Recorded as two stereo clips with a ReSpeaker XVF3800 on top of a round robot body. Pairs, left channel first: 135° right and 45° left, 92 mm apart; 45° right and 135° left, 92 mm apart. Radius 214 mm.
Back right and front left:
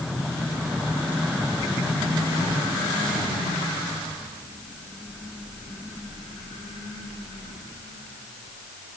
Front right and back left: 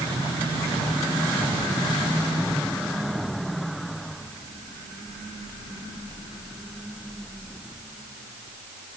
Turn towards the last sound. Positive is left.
No sound to turn to.